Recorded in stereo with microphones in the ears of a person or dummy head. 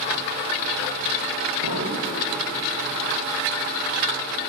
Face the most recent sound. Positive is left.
turn(degrees=-75)  # may be behind; listen again after turning